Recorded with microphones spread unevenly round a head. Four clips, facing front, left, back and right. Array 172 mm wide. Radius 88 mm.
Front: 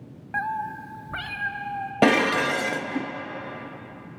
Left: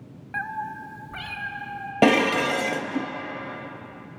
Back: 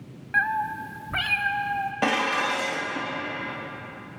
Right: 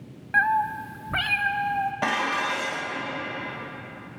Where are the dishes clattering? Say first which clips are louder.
Left 7 dB, front 6 dB; 55° left, 0.9 m.